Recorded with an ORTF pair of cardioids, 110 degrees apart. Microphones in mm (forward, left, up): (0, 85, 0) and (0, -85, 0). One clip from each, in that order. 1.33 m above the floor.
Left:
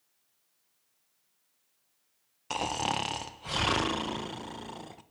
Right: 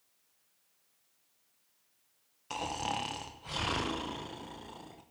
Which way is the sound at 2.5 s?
35° left.